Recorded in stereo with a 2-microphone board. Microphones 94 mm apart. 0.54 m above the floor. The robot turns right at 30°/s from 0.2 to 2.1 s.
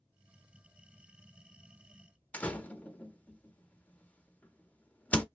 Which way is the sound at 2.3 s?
15° left (ahead or behind).